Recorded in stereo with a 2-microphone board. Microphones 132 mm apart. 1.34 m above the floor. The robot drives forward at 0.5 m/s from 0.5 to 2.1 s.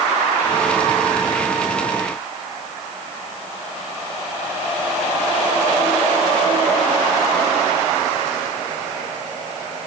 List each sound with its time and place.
Only background noise.